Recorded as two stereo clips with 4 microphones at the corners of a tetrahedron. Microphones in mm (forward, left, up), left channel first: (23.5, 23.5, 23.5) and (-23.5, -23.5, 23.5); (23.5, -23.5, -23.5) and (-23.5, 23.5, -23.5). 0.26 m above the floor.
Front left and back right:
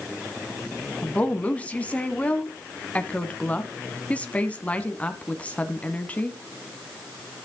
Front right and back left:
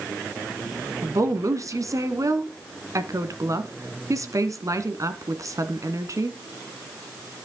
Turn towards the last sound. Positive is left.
turn(degrees=110)